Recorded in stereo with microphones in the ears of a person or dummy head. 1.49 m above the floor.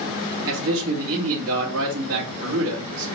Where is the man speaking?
70° right (ahead or behind), 1.8 m.